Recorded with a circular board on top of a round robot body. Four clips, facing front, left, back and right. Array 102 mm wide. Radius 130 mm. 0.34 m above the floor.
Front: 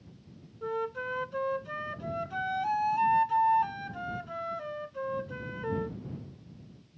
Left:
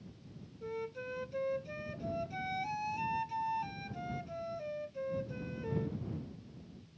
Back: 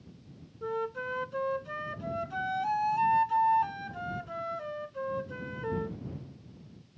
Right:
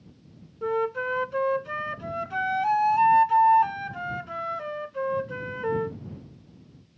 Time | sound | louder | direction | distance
0.6 | a flute | right 15 dB, even | 85° right | ?